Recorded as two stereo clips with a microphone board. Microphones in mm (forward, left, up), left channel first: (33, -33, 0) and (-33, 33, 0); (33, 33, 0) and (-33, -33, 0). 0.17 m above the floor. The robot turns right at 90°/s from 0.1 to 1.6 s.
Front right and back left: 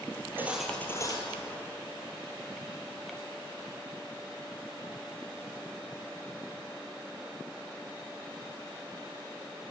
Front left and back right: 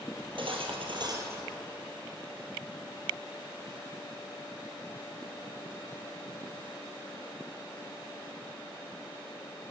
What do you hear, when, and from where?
0.1 s cutlery clinking: straight behind, 2.5 m; by 1.7 s 50° right, 2.5 m